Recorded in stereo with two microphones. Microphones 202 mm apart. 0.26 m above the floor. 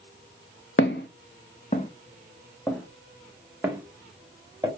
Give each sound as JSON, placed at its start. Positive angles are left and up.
{"t": 0.8, "sound": "footsteps", "side_deg": 75, "distance_m": 0.8}